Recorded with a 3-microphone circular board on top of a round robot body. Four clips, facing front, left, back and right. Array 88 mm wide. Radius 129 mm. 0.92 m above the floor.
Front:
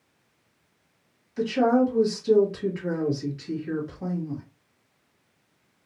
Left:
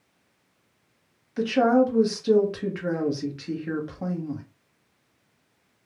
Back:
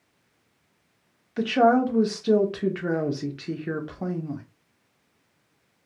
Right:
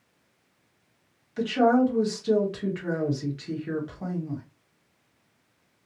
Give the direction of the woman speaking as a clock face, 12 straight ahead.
6 o'clock.